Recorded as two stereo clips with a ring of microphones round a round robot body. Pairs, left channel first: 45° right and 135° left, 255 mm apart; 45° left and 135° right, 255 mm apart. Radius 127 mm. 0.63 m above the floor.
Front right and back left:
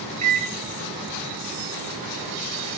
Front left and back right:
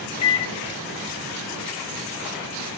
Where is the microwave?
95° left, 0.5 m.